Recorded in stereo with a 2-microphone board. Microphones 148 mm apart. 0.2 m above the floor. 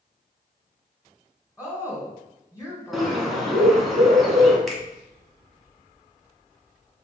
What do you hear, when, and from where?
1.6 s a woman speaking: 20° left (ahead or behind), 1.6 m
2.9 s a bird: centre (ahead or behind), 1.1 m
4.7 s a finger snap: centre (ahead or behind), 1.0 m